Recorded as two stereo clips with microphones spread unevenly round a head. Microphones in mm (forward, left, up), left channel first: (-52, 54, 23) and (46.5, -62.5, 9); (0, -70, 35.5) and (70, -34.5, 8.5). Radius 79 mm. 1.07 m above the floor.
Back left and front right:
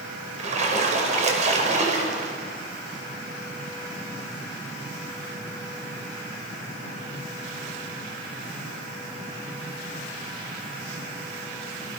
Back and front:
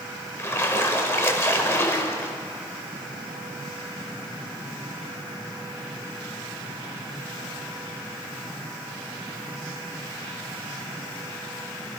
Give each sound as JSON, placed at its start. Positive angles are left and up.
{"t": 0.4, "sound": "a splash", "azimuth_deg": -95, "distance_m": 5.0}